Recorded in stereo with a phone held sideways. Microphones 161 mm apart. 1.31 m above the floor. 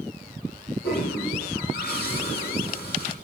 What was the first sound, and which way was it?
A toilet flushing, 80° left.